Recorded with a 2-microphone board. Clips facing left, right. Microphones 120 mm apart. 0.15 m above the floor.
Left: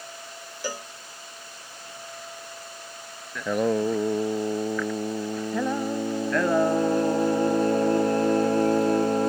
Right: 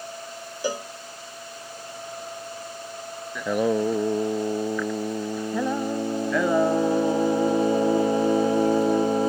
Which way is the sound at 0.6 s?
20° right (ahead or behind).